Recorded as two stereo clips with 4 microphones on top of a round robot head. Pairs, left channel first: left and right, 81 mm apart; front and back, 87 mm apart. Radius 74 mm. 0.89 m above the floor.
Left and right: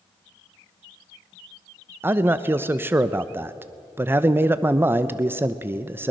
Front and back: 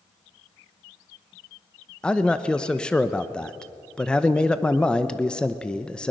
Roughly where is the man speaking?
Ahead right.